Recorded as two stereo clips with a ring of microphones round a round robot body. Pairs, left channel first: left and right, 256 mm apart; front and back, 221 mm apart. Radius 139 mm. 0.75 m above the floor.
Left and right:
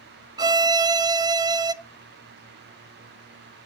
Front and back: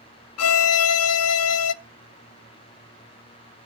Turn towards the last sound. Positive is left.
turn(degrees=-15)